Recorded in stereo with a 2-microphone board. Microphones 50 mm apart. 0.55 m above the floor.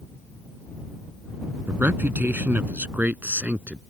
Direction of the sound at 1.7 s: 45° right (ahead or behind).